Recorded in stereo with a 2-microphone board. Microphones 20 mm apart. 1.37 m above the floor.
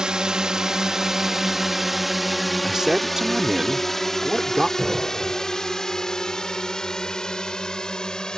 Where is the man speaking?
20° right (ahead or behind).